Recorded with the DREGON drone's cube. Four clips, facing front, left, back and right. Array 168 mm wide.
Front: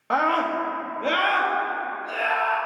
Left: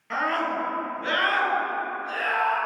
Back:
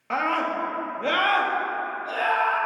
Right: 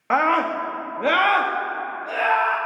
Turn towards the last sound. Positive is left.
turn(degrees=-110)